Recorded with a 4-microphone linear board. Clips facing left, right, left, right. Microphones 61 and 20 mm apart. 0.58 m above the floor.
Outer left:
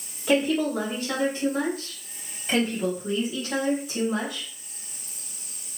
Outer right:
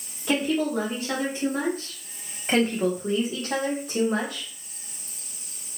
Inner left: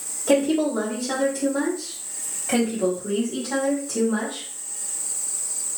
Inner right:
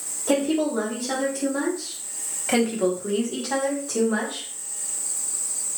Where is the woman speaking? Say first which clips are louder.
Outer left 2 dB, inner left 2 dB; centre (ahead or behind), 1.3 m; by 4.5 s 50° right (ahead or behind), 1.7 m.